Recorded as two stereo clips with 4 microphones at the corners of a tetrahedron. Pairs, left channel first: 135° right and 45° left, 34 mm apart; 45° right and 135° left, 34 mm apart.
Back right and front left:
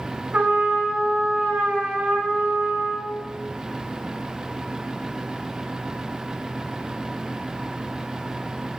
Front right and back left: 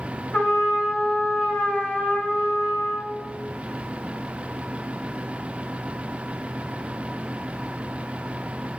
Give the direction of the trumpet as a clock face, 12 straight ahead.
12 o'clock.